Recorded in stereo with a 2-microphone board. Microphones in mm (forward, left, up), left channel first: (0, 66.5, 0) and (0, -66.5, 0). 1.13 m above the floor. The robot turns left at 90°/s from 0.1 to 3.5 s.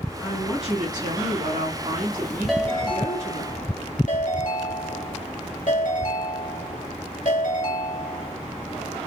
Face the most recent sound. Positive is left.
turn(degrees=85)